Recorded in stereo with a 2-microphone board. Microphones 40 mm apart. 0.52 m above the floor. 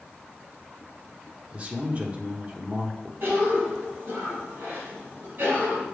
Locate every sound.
1.5 s a man speaking: 30° right (ahead or behind), 1.1 m
3.2 s a cough: 55° right (ahead or behind), 3.5 m